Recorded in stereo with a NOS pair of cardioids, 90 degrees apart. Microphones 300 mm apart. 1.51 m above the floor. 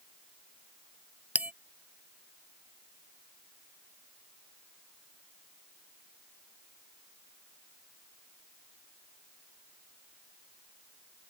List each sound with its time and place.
1.4 s a bell: 5° right